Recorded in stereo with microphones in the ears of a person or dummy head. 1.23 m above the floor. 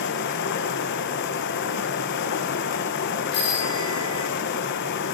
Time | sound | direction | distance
0.0 | running water | 50° left (ahead or behind) | 0.8 m
3.3 | a bicycle bell | 20° left (ahead or behind) | 6.5 m